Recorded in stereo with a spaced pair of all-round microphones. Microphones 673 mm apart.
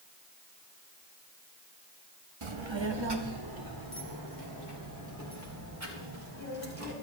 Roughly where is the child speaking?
Right.